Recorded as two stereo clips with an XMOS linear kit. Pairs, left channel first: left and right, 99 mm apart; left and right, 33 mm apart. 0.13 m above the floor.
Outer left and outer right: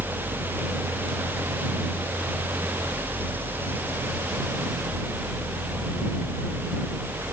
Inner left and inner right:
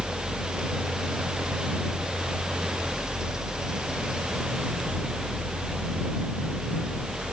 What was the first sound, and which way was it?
Only background noise.